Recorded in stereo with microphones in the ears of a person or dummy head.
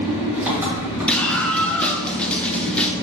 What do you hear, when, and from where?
0.0 s an engine running: 15° right (ahead or behind), 2.0 m
1.1 s a scream: 5° left (ahead or behind), 0.5 m